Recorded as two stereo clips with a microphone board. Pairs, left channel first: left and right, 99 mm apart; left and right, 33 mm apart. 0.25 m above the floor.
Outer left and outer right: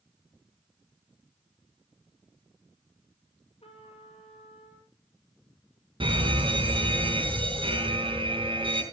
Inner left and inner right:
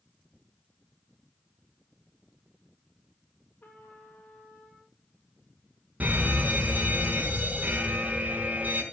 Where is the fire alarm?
60° right (ahead or behind), 4 m.